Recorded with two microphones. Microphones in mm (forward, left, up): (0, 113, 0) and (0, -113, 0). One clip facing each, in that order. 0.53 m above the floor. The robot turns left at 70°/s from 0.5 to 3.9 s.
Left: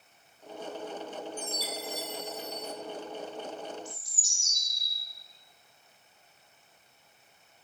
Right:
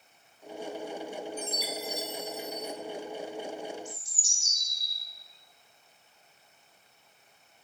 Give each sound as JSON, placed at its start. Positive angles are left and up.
{"t": 1.4, "sound": "a chime", "azimuth_deg": -145, "distance_m": 0.9}
{"t": 3.9, "sound": "a bird", "side_deg": 35, "distance_m": 3.5}